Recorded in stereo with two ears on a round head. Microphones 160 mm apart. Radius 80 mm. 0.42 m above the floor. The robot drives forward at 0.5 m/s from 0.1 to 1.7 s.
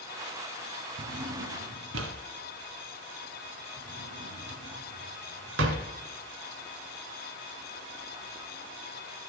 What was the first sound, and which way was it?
A drawer, 70° right (ahead or behind).